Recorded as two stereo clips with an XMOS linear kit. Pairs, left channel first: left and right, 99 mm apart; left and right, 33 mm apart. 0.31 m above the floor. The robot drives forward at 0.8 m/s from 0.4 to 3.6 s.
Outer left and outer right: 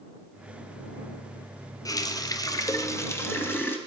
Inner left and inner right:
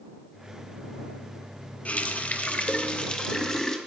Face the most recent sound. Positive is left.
turn(degrees=20)  # may be behind; listen again after turning